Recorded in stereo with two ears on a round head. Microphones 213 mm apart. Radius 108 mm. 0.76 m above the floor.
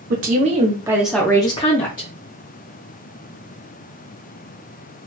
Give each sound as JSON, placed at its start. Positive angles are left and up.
{"t": 0.1, "sound": "a woman speaking", "side_deg": -40, "distance_m": 0.8}